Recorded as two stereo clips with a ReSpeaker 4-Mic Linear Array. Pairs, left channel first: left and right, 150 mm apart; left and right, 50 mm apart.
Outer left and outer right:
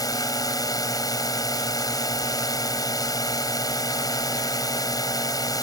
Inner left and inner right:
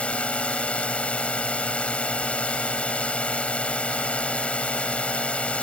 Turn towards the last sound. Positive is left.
turn(degrees=25)  # may be behind; listen again after turning